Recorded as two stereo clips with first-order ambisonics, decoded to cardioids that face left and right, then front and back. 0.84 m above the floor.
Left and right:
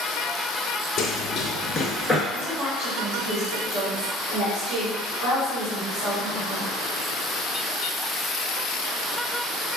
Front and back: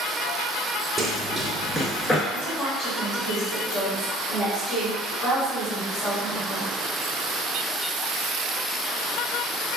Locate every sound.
1.0 s running footsteps: 100° left, 1.0 m; by 2.2 s 20° right, 0.8 m
2.3 s a woman speaking: 60° right, 1.9 m